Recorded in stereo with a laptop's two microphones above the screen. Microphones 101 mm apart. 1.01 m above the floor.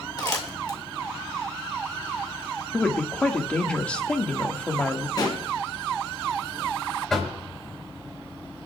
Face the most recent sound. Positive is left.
turn(degrees=5)  # may be behind; listen again after turning